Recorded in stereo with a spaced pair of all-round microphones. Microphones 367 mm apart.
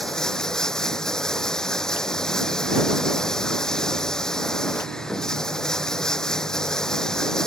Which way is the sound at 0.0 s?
Centre (ahead or behind).